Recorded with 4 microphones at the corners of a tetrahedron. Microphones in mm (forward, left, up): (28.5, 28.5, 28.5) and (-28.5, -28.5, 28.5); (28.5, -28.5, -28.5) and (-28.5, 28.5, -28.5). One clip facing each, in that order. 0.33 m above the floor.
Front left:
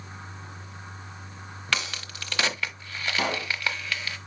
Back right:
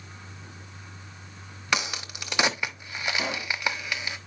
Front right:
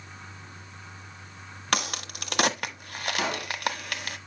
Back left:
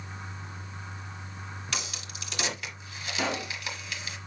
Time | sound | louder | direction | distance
1.7 | a crack | back right 2 dB, front right 11 dB | 65° right | 1.0 m
3.2 | a pop | front left 6 dB, back left 1 dB | 35° left | 3 m